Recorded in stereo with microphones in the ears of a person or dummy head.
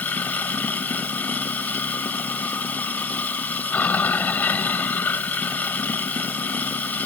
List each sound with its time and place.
0.0 s running water: 10° left (ahead or behind)